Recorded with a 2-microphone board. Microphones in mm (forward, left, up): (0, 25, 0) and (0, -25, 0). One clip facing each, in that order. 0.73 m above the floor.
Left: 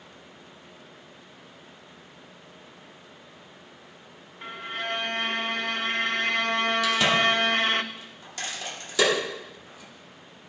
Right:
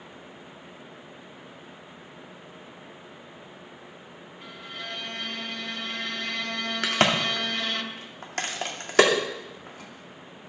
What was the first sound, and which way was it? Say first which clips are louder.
A violin: left 7 dB; 45° left (ahead or behind).